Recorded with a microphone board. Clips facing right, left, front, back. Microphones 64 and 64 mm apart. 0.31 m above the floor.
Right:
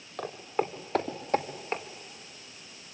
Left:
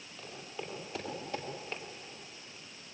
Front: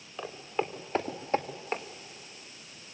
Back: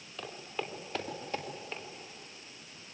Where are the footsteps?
70° right, 3 m; by 1.8 s 45° right, 2 m.